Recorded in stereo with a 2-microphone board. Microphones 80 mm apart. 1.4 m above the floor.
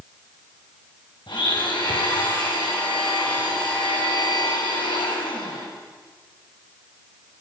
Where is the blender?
75° left (ahead or behind), 6.5 m.